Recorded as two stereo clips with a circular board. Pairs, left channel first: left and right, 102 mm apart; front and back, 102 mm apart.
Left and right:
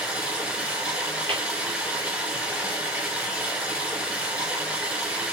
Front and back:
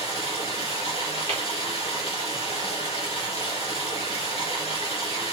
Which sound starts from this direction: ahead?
Running water, at 0.0 s.